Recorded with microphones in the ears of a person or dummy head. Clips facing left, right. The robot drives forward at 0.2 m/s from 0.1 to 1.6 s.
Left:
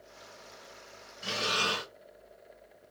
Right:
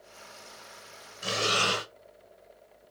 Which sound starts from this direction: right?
Breathing, at 1.2 s.